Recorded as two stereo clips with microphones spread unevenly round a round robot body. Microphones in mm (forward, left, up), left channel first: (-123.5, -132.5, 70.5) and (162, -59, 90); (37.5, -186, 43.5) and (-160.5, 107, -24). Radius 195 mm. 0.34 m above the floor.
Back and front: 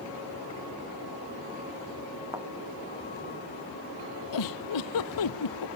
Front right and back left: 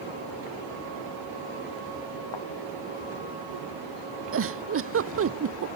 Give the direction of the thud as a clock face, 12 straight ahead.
2 o'clock.